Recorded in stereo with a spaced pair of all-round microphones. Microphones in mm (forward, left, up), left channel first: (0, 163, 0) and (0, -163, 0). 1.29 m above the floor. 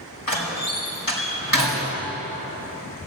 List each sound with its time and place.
0.3 s a door slam: 75° left (ahead or behind), 5 m